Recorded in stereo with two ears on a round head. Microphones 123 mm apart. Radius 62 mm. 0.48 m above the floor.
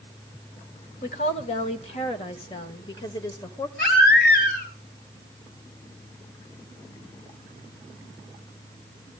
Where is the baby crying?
80° left, 4 m.